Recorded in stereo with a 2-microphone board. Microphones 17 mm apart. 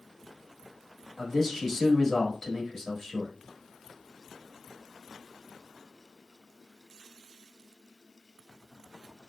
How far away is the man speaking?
About 1.0 m.